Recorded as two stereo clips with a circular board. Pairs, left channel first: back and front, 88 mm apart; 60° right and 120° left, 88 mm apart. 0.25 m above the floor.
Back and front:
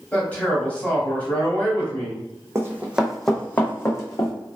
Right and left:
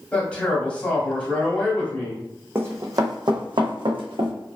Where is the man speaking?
120° right, 1.0 m.